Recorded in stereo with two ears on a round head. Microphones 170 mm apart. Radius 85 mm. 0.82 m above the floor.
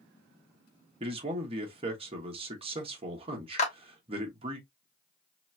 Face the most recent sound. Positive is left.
turn(degrees=35)  # may be behind; listen again after turning